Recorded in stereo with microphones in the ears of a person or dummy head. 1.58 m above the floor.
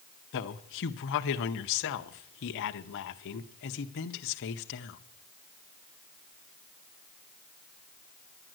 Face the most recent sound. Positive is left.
turn(degrees=60)  # may be behind; listen again after turning